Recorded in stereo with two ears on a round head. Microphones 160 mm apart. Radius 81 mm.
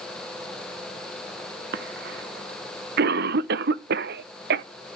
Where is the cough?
60° right (ahead or behind), 0.9 m.